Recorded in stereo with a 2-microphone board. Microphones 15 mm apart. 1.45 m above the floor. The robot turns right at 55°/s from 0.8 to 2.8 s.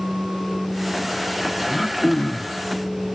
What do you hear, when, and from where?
1.7 s throat clearing: 35° left, 1.2 m; by 2.6 s 85° left, 1.2 m